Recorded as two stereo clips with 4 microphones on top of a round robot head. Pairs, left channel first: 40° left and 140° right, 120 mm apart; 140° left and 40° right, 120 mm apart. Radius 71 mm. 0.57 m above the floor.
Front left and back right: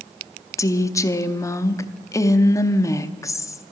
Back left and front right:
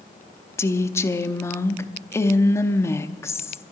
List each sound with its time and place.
0.6 s a woman speaking: 85° left, 0.7 m